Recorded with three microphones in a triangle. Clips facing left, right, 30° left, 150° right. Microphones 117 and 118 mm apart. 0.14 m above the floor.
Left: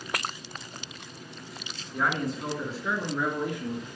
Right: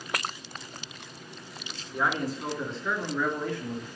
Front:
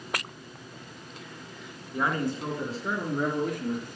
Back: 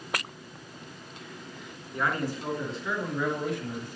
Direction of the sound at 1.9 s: 15° right.